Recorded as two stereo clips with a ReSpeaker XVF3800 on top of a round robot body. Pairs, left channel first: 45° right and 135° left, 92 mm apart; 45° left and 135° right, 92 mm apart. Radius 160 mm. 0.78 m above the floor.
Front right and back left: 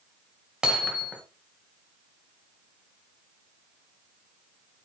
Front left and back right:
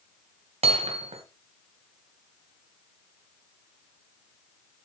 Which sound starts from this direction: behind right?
Hammering, at 0.6 s.